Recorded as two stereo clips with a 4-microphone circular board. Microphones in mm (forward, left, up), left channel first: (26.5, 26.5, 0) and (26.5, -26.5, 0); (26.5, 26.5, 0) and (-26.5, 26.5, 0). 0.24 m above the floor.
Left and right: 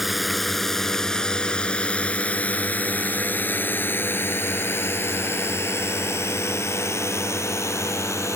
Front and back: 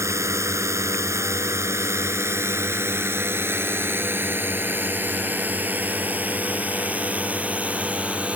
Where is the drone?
175° right; by 8.4 s 115° left.